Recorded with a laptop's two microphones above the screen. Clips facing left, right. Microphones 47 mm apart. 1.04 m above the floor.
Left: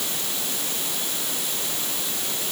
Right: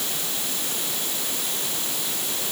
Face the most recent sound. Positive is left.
No sound to turn to.